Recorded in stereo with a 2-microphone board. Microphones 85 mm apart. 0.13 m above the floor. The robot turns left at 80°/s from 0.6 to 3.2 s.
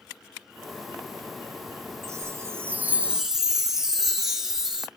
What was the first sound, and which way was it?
A chime, 75° right.